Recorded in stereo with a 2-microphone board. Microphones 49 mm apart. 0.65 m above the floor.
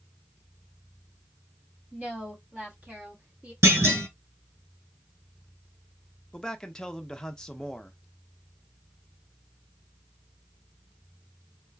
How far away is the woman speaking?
About 1.4 m.